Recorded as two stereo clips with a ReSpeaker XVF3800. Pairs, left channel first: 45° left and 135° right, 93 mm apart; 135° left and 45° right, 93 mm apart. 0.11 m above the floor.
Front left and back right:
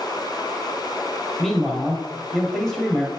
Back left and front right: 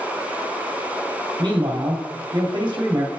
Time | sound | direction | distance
1.4 | a man speaking | 40° right | 2 m